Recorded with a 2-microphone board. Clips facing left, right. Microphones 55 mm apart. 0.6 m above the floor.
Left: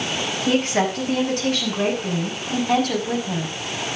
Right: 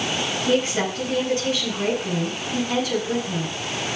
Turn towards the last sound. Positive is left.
turn(degrees=65)  # may be behind; listen again after turning